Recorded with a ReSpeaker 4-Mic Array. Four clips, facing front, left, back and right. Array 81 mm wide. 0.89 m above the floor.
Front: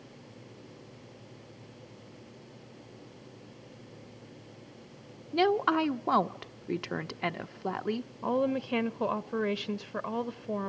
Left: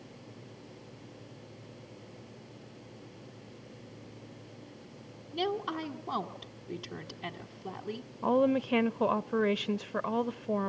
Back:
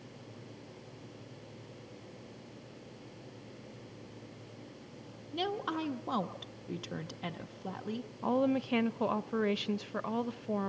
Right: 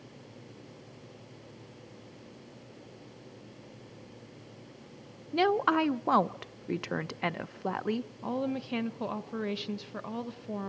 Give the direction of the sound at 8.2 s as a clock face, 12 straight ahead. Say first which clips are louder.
Left 9 dB, front 1 dB; 9 o'clock.